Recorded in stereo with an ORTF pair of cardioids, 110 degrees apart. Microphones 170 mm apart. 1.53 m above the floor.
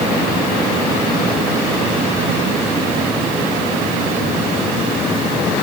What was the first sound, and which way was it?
Only background noise.